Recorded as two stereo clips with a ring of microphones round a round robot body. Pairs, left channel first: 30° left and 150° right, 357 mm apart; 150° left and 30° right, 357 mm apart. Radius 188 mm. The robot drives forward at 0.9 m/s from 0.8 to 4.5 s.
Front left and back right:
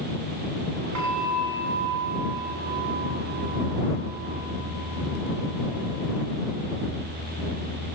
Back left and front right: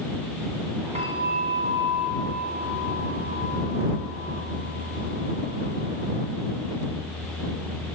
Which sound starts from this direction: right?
A bell, at 0.9 s.